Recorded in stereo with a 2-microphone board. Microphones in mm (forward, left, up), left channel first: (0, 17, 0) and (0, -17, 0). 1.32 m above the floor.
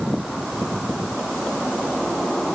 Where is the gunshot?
No gunshot in this recording.